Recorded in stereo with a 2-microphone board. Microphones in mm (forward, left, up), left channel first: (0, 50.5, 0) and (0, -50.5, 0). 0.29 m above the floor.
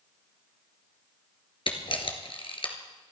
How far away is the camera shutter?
About 2 m.